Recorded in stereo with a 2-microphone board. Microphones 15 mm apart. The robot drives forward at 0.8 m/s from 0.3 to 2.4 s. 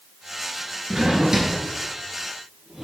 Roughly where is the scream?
I don't hear a scream.